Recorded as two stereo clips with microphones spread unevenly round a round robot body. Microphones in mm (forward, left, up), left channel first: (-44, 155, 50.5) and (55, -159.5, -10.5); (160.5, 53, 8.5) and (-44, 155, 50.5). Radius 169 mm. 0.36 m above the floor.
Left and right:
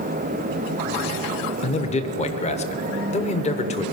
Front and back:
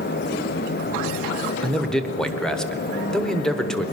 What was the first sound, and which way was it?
A man speaking, 35° left.